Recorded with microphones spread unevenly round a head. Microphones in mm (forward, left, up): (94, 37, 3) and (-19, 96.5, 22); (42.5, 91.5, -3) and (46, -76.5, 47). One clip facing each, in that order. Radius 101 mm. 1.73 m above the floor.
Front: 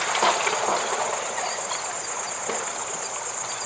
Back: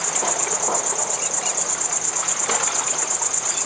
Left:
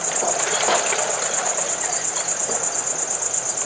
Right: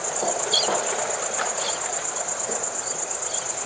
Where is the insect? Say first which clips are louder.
Front 4 dB, left 2 dB; 155° left, 1.6 m.